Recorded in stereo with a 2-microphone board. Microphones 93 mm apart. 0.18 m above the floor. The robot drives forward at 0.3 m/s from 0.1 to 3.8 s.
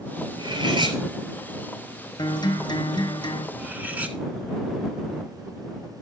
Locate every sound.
0.4 s cutlery clinking: 70° right (ahead or behind), 1.8 m; by 1.0 s 65° right (ahead or behind), 1.8 m
2.2 s a guitar: 60° left (ahead or behind), 1.7 m
3.6 s cutlery clinking: 20° right (ahead or behind), 1.0 m